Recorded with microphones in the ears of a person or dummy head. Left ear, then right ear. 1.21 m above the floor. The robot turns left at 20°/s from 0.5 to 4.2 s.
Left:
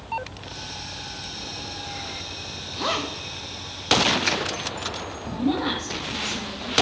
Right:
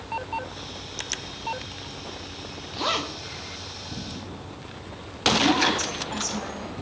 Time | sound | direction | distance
2.7 | a zipper | 5° right (ahead or behind) | 0.9 m
5.2 | a woman speaking | 50° right (ahead or behind) | 3.5 m